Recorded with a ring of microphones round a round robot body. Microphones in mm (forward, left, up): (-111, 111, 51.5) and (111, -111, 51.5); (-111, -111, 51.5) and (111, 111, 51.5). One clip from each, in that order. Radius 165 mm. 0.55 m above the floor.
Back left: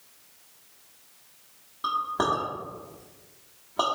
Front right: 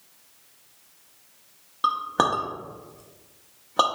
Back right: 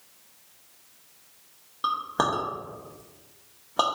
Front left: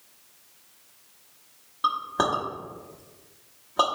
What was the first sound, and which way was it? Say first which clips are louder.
A clink: front right 3 dB, front left 1 dB; 55° right.